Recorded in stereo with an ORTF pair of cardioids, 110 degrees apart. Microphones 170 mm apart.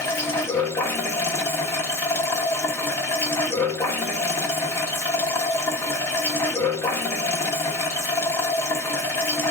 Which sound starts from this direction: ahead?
Running water, at 0.0 s.